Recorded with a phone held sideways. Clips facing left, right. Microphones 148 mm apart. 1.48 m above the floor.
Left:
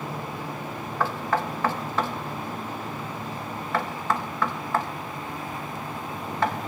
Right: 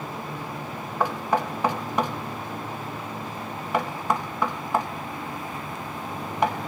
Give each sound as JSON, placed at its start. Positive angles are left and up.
{"t": 1.0, "sound": "knocking", "side_deg": -15, "distance_m": 1.0}